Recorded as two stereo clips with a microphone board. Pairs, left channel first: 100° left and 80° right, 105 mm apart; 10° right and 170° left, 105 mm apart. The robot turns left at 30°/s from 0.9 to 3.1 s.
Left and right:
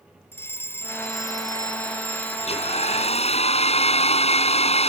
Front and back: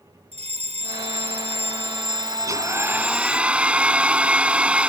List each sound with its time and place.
0.3 s a fire alarm: 170° left; by 3.4 s 100° left
2.4 s a hair dryer: 110° left; by 4.9 s 90° left